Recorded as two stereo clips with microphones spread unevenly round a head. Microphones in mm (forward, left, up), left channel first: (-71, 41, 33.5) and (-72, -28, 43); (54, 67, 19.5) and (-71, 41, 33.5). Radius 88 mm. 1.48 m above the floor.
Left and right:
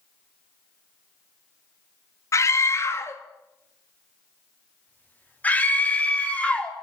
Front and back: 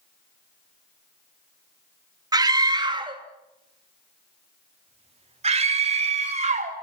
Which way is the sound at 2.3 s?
130° left.